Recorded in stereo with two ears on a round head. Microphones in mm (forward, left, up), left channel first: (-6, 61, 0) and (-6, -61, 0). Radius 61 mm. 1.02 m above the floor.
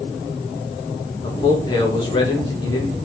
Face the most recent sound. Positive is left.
turn(degrees=30)  # may be behind; listen again after turning